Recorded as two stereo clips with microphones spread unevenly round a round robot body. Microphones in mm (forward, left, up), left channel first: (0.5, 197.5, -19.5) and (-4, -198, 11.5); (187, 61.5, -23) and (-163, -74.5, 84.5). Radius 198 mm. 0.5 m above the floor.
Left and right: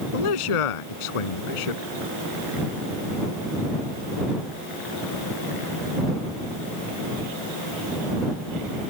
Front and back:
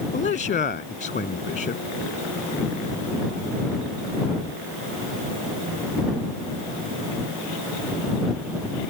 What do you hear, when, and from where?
0.1 s a man speaking: 90° left